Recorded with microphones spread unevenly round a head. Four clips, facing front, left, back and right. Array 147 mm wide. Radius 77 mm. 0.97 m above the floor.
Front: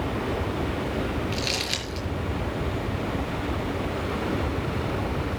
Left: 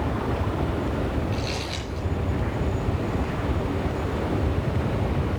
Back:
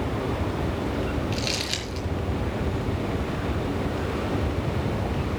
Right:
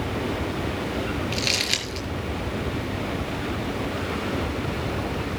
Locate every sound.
1.3 s crumpling: 85° right, 7 m